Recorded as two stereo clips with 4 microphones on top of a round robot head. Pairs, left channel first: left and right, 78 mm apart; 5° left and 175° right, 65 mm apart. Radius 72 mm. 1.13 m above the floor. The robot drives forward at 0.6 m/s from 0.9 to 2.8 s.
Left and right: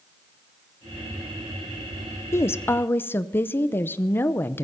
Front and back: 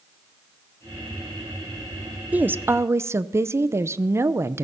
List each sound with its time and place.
2.3 s a woman speaking: 125° left, 0.6 m; by 4.7 s 150° left, 0.8 m